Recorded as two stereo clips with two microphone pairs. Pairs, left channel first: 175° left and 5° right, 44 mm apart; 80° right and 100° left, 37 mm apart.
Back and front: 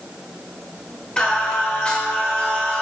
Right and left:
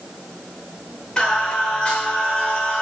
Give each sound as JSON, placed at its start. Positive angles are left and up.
{"t": 1.2, "sound": "singing", "azimuth_deg": -130, "distance_m": 1.2}